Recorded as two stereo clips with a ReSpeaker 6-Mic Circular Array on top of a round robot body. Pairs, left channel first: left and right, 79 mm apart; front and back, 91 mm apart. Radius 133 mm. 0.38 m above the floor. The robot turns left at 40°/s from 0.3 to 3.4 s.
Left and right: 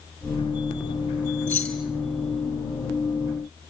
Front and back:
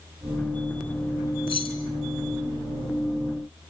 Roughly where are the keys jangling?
Ahead.